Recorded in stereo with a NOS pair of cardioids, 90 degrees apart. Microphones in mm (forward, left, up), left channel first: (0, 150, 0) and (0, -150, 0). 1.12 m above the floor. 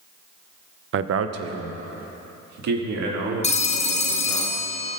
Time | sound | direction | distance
0.9 | a man speaking | 40° right | 0.6 m
3.4 | a phone ringing | 20° left | 1.0 m